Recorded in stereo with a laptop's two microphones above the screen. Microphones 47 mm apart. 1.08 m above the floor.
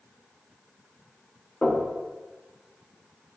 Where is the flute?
I don't hear a flute.